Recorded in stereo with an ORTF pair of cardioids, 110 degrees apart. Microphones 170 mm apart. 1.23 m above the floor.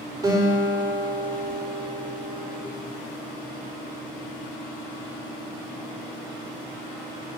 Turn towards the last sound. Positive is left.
turn(degrees=-20)